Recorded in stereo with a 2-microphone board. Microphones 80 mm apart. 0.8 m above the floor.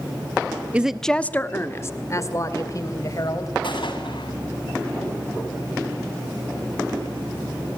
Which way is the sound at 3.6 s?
80° left.